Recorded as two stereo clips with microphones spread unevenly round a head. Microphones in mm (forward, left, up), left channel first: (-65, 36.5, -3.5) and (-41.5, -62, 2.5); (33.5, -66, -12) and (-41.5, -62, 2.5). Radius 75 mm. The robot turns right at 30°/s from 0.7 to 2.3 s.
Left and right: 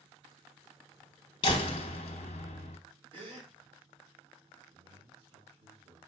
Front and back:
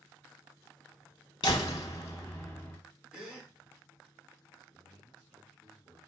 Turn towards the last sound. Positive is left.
turn(degrees=-100)